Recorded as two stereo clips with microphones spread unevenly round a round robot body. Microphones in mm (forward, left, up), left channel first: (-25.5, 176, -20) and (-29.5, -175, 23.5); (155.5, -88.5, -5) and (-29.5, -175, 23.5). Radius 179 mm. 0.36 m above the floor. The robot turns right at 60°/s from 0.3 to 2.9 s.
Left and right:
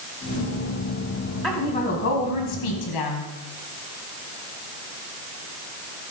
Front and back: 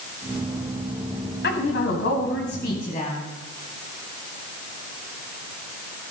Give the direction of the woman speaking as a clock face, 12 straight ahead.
12 o'clock.